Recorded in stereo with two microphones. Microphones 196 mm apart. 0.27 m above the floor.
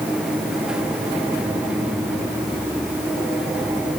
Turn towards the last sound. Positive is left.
No sound to turn to.